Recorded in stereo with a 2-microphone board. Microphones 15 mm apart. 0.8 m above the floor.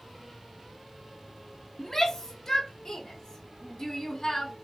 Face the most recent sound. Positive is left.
turn(degrees=30)  # may be behind; listen again after turning